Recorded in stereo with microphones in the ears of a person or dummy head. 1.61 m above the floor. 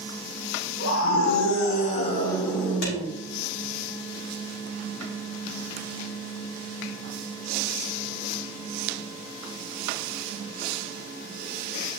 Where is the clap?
60° left (ahead or behind), 3 m.